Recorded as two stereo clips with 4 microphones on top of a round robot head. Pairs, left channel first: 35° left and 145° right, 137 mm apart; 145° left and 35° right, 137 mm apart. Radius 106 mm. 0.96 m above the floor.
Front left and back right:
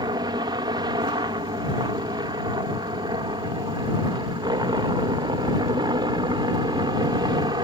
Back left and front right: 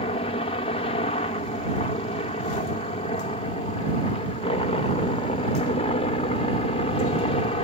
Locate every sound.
0.0 s a helicopter: 165° left